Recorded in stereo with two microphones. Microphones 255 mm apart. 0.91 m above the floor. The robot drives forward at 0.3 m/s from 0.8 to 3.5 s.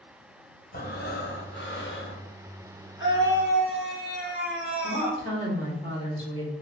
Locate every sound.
0.7 s breathing: 40° left (ahead or behind), 0.9 m; by 2.3 s 50° left (ahead or behind), 0.8 m
3.0 s a scream: 50° left (ahead or behind), 1.2 m; by 5.2 s 45° left (ahead or behind), 1.3 m
4.8 s a woman speaking: 20° left (ahead or behind), 1.6 m